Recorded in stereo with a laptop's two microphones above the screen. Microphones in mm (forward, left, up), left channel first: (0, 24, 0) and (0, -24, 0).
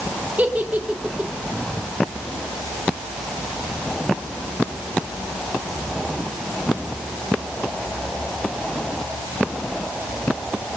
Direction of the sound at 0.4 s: 35° right (ahead or behind).